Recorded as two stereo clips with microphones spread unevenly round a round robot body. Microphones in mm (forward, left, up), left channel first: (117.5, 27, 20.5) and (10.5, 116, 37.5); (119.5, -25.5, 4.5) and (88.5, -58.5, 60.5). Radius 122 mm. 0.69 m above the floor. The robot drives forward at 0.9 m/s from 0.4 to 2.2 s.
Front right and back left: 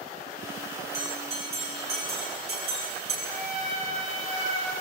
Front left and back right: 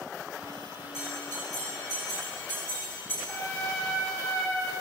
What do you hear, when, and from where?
0.9 s a bell: 95° left, 8.5 m; by 3.1 s 105° left, 8.5 m
3.2 s a trumpet: 110° left, 9 m